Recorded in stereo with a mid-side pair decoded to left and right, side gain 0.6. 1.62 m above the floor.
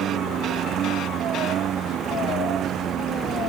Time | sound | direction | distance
0.0 | a lawn mower | 55° right | ?